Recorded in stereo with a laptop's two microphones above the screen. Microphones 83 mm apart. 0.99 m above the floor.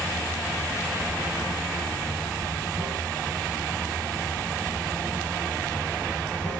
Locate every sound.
0.0 s running water: 20° left (ahead or behind), 1.5 m